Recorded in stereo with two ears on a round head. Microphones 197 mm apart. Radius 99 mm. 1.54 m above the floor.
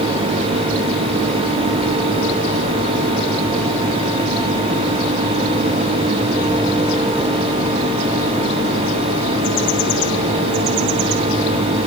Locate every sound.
Only background noise.